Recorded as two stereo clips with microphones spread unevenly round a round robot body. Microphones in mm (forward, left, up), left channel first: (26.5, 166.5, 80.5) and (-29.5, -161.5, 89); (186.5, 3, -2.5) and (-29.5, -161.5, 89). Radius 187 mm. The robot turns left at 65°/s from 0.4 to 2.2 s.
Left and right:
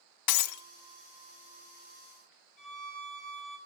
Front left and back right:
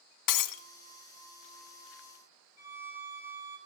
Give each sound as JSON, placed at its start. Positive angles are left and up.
{"t": 0.3, "sound": "breaking glass", "azimuth_deg": 50, "distance_m": 1.5}
{"t": 2.6, "sound": "a violin", "azimuth_deg": 50, "distance_m": 5.0}